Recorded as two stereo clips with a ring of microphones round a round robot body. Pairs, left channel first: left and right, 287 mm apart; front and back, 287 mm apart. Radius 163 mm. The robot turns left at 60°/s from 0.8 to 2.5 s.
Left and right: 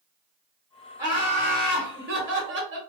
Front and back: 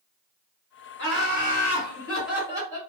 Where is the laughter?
15° right, 1.4 m; by 2.8 s 105° right, 1.4 m.